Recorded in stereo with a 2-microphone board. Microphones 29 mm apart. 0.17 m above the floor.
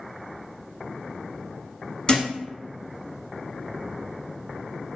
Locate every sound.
2.1 s a thud: 25° left (ahead or behind), 0.7 m